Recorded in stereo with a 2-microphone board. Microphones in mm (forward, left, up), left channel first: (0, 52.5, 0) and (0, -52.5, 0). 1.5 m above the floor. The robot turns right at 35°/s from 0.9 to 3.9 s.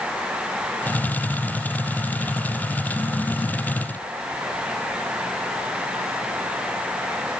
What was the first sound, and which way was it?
Only background noise.